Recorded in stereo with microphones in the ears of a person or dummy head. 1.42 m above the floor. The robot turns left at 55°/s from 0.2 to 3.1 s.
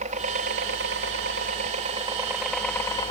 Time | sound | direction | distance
0.0 | a helicopter | 50° right | ?